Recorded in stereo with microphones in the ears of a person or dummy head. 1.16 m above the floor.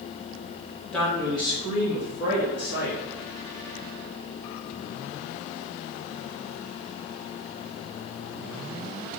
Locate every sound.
0.9 s a man speaking: centre (ahead or behind), 0.9 m; by 3.0 s 45° left (ahead or behind), 2 m